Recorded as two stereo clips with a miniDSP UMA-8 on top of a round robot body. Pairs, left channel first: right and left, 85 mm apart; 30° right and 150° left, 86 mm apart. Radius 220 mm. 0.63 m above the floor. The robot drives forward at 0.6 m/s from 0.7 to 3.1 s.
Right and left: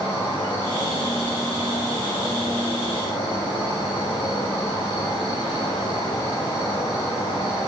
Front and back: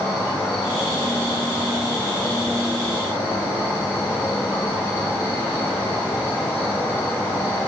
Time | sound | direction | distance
0.0 | an insect | 80° right | 6 m